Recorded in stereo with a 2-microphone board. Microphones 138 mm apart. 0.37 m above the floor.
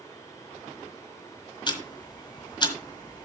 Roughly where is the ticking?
Left.